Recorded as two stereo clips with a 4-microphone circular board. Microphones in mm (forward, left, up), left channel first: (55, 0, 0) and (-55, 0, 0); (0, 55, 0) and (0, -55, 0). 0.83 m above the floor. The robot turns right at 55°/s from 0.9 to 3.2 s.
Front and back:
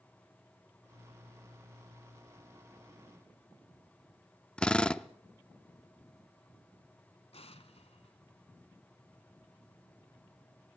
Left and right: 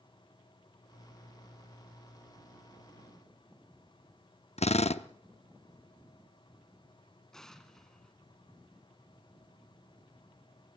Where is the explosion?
5° left, 1.3 m.